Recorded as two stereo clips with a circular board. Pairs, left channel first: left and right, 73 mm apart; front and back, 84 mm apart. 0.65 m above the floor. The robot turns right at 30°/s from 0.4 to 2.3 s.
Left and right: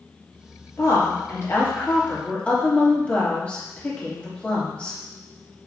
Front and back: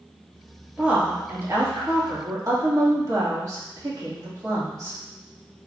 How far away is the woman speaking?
About 1.6 m.